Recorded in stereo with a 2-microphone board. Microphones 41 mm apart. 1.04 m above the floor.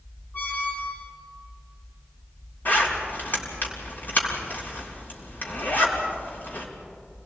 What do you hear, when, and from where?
0.3 s a squeak: 50° left (ahead or behind), 3 m
2.6 s a zipper: 50° left (ahead or behind), 4.5 m